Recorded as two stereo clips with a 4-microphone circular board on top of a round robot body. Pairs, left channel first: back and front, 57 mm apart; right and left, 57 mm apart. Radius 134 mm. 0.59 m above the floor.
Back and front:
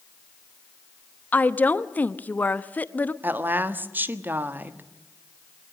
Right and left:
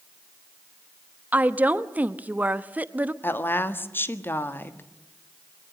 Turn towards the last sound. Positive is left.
turn(degrees=-50)